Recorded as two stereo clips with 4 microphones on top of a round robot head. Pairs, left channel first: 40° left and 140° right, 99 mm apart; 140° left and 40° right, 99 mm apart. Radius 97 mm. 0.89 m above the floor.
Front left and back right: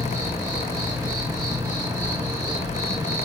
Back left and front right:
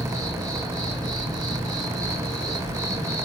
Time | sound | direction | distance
0.0 | an insect | 85° right | 1.8 m